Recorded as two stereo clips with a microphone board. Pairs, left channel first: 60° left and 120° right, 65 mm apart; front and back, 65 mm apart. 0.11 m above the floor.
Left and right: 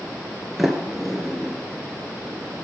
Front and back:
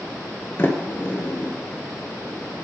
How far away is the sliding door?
About 1.3 m.